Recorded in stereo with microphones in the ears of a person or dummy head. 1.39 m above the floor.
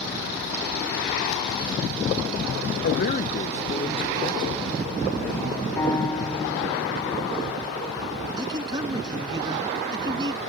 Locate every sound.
2.8 s a man speaking: 55° left (ahead or behind); by 5.7 s 15° left (ahead or behind)
5.8 s a piano: 15° left (ahead or behind)
8.4 s a man speaking: 25° right (ahead or behind)